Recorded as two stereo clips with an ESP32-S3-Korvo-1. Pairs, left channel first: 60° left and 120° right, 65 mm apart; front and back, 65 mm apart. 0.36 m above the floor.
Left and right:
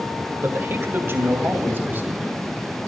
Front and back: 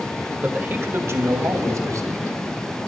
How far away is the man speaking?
About 1.6 m.